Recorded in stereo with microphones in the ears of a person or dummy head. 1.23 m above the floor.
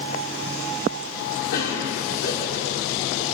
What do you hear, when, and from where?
1.5 s a cough: 80° left, 3 m